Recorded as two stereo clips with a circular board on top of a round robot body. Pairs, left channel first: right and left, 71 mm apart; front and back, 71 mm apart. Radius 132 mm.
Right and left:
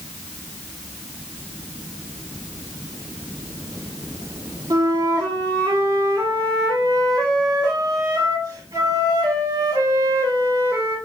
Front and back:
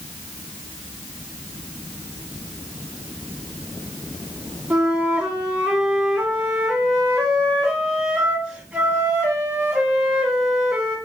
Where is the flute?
110° left, 2 m.